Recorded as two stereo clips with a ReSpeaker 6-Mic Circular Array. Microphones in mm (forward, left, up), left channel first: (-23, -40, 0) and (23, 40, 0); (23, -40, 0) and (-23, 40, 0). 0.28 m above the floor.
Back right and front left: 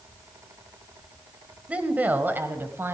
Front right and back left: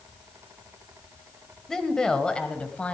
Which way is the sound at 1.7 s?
15° left.